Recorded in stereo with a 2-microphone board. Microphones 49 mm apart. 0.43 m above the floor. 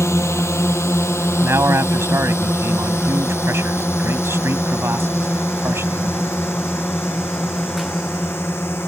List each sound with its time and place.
0.0 s a drone: 65° left (ahead or behind); by 8.9 s 50° left (ahead or behind)
1.4 s a man speaking: 60° right (ahead or behind)